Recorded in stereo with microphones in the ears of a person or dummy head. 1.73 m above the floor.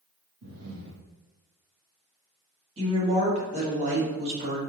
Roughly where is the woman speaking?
Right.